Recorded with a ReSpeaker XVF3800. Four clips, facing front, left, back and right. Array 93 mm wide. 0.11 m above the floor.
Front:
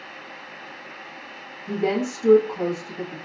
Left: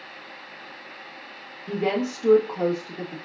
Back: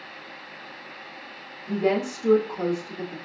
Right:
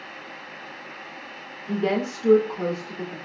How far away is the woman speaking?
About 2.5 m.